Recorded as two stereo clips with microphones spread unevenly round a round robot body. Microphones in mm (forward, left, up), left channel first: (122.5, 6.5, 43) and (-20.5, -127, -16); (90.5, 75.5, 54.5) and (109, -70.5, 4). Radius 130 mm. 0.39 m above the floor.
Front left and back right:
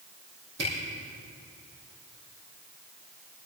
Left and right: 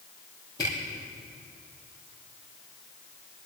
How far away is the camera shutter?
About 4.5 m.